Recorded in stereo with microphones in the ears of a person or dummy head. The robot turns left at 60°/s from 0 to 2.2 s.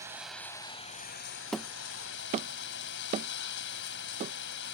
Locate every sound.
0.0 s running water: 160° right; by 4.8 s 70° left
1.5 s hammering: 5° left (ahead or behind); by 4.3 s 35° right (ahead or behind)